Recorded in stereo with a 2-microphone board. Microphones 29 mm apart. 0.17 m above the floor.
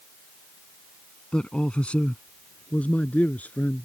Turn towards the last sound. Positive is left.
turn(degrees=60)  # may be behind; listen again after turning